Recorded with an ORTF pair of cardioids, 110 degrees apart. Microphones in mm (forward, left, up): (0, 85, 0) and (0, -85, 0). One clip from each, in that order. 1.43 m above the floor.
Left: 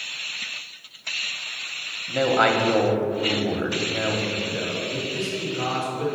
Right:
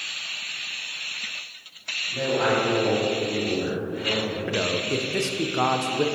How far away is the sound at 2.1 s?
About 1.2 m.